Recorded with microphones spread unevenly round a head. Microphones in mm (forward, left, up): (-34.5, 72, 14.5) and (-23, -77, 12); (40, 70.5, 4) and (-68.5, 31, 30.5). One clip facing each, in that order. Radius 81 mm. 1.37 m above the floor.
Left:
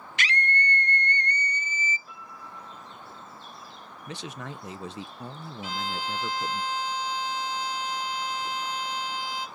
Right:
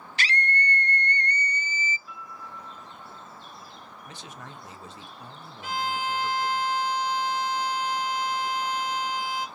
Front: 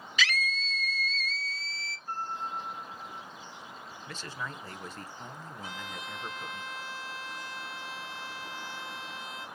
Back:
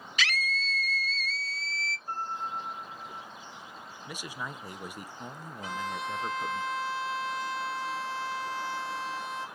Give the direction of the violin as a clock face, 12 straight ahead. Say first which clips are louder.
Right 3 dB, back 9 dB; 4 o'clock.